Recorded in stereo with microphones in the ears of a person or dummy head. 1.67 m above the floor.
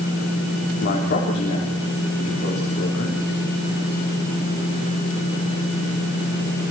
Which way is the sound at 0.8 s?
55° left (ahead or behind).